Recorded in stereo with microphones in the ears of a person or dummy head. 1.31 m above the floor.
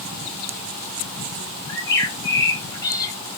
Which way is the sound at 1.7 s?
20° left (ahead or behind).